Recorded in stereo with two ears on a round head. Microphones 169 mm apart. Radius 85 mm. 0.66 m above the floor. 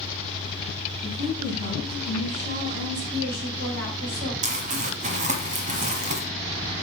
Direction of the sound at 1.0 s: 40° right (ahead or behind).